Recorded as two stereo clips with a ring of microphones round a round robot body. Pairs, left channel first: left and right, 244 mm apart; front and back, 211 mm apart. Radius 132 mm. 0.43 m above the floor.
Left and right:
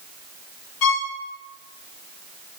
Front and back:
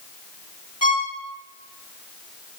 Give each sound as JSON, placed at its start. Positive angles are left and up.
{"t": 0.8, "sound": "a violin", "azimuth_deg": 70, "distance_m": 2.5}